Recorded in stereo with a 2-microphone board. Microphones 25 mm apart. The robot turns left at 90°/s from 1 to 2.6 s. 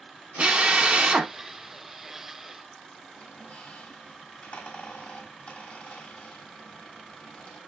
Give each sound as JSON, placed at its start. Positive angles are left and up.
{"t": 0.4, "sound": "a drill", "azimuth_deg": -125, "distance_m": 0.7}
{"t": 3.1, "sound": "a squeak", "side_deg": 75, "distance_m": 1.6}